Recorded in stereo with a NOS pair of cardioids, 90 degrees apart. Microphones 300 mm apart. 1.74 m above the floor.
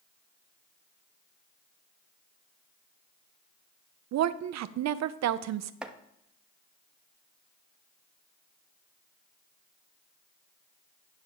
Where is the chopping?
5° right, 0.8 m.